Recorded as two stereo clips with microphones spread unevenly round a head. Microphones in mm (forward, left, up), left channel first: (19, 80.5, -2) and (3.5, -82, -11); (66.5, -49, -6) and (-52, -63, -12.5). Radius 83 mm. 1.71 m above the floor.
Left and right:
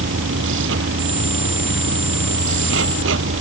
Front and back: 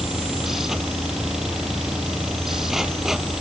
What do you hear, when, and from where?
0.0 s a machine running: 85° right